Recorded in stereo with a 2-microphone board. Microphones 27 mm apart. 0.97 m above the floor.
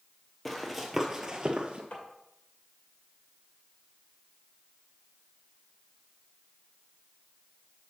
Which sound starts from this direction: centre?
Running footsteps, at 0.5 s.